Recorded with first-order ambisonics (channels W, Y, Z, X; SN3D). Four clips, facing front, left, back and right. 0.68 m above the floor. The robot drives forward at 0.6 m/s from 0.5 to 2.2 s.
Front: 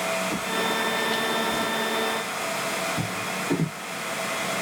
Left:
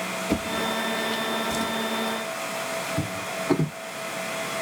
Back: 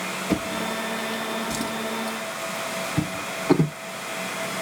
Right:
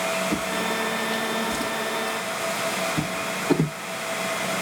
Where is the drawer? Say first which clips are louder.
Right 1 dB, front 1 dB; 140° left, 0.6 m; by 3.8 s 170° left, 1.5 m.